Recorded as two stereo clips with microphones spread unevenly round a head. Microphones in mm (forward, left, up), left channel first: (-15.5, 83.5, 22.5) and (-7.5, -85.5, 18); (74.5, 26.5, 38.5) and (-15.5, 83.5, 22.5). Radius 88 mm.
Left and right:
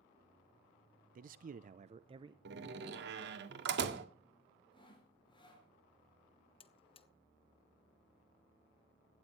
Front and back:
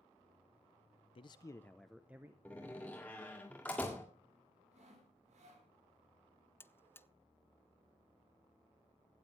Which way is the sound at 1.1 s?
70° right.